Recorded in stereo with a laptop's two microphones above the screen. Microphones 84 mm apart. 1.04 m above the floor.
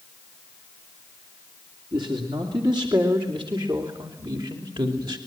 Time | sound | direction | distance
1.9 | a man speaking | 75° right (ahead or behind) | 3 m